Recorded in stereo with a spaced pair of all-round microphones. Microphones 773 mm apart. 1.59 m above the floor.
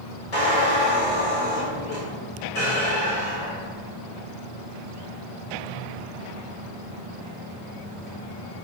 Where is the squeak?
50° left (ahead or behind), 1.3 m.